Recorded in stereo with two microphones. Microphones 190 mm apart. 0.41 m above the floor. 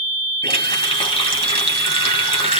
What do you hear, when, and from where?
0.4 s a running tap: 30° left (ahead or behind), 1.6 m